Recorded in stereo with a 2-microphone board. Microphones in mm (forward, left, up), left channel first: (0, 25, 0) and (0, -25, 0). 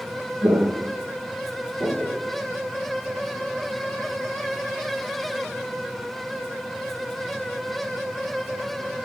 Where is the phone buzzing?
I don't hear a phone buzzing.